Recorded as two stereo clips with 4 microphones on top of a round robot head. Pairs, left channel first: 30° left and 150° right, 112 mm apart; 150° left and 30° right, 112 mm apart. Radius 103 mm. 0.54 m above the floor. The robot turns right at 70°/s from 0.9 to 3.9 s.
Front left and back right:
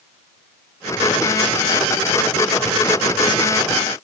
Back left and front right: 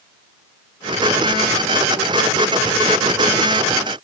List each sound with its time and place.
Only background noise.